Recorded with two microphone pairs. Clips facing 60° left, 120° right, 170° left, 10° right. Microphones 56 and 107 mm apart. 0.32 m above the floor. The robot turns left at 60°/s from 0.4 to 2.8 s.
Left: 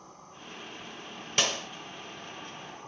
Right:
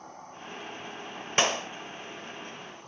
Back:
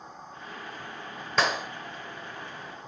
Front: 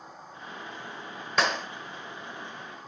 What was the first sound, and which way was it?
An insect, 95° right.